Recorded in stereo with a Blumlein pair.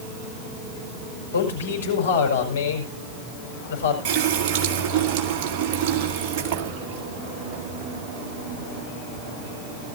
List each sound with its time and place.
1.3 s a man speaking: 65° left, 5.5 m
4.0 s a running tap: 40° right, 2.0 m